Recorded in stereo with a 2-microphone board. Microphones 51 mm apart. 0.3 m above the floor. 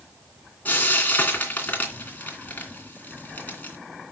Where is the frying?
35° left (ahead or behind), 2.5 m.